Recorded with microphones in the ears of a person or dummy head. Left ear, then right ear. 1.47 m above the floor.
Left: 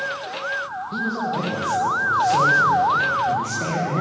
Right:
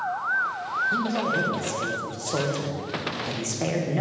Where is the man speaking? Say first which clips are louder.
Even; 40° right (ahead or behind), 1.7 m.